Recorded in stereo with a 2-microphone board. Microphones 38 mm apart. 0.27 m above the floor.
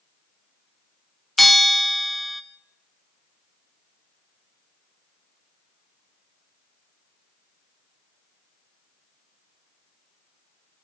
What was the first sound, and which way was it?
A bell, 5° left (ahead or behind).